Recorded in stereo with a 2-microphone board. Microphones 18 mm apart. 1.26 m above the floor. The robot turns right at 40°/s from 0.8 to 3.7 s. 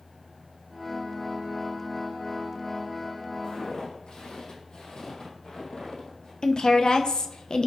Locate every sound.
3.4 s footsteps: 60° left (ahead or behind), 2.5 m; by 6.3 s 45° left (ahead or behind), 2.5 m
6.4 s a woman speaking: 50° left (ahead or behind), 0.8 m